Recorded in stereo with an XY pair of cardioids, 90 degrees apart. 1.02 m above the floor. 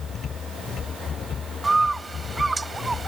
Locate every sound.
0.0 s a machine running: 60° left
1.6 s a bird: 20° right